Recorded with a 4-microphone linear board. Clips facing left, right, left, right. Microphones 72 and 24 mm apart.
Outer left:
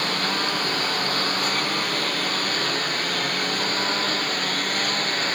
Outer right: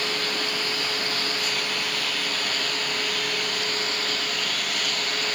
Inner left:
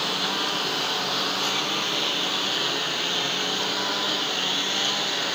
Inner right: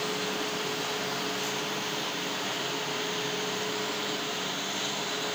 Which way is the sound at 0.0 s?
45° left (ahead or behind).